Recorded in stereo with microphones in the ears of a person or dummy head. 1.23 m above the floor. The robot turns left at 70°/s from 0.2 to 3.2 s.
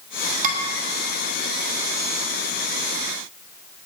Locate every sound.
0.4 s dishes clattering: 45° right (ahead or behind), 2 m; by 0.6 s 55° right (ahead or behind), 2 m